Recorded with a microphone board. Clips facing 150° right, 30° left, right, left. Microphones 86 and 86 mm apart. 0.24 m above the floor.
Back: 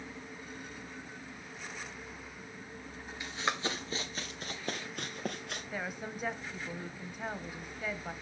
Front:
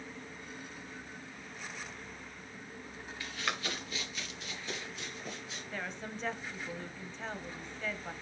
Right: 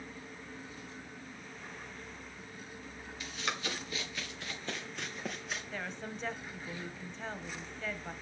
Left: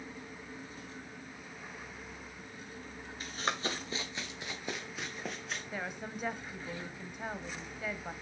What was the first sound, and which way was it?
Running footsteps, 140° left.